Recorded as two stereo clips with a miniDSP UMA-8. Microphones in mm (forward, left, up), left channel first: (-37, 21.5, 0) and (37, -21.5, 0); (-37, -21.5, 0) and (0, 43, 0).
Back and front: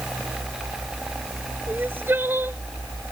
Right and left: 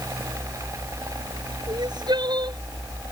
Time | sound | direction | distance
1.7 | crying | 35° left | ?